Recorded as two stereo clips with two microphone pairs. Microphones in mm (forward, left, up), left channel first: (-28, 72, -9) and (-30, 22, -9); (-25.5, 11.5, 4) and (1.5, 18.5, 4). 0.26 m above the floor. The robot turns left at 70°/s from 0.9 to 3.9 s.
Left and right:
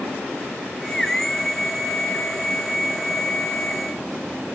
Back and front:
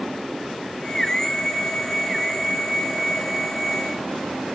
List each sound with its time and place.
Only background noise.